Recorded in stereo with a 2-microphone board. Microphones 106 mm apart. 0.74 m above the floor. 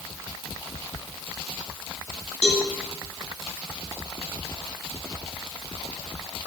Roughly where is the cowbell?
Left.